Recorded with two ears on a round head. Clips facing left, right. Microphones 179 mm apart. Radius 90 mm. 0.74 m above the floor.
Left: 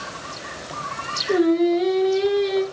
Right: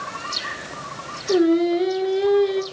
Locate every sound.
1.3 s singing: 5° right (ahead or behind), 1.8 m